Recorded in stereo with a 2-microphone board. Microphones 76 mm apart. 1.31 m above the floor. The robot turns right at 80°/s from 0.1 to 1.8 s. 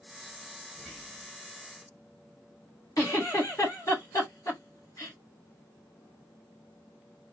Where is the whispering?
5° right, 1.2 m; by 1.3 s 40° left, 1.2 m.